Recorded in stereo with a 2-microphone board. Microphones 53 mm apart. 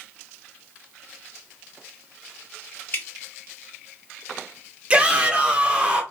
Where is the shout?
20° right (ahead or behind), 0.7 m.